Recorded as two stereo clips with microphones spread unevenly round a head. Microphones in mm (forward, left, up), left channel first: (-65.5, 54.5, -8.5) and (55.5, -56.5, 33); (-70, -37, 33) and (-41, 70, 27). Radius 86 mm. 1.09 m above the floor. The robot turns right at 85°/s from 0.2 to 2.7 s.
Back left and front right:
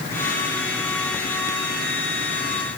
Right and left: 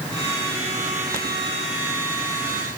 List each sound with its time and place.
Only background noise.